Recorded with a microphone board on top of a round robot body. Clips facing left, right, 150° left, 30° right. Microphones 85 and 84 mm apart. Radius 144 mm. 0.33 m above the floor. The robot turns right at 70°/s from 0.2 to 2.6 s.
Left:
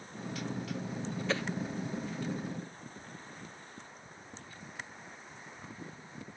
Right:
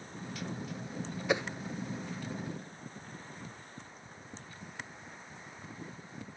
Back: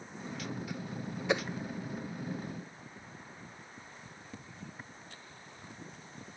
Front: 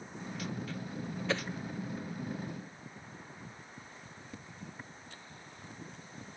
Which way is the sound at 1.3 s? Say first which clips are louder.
Right 4 dB, back 4 dB; 155° right.